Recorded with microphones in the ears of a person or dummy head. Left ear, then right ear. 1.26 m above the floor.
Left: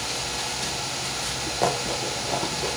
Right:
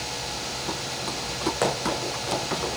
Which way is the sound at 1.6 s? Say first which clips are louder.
Left 2 dB; 70° right (ahead or behind).